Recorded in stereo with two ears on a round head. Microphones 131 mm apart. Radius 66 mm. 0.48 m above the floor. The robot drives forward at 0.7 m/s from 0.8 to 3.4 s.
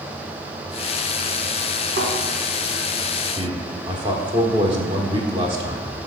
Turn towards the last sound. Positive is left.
turn(degrees=-30)  # may be behind; listen again after turning